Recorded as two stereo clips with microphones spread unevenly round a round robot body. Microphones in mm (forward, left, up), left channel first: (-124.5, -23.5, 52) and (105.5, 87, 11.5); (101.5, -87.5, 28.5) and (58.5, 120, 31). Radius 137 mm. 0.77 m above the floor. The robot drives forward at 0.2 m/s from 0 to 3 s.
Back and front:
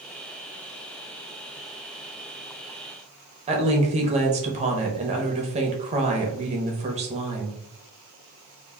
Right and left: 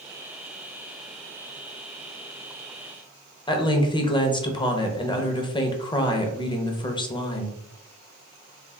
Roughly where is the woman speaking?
Ahead.